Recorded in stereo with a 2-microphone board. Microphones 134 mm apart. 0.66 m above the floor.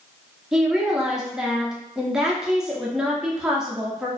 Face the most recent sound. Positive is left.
turn(degrees=-5)  # may be behind; listen again after turning